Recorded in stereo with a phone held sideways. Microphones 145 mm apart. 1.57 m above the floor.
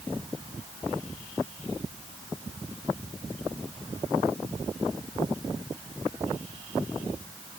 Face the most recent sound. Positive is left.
No sound to turn to.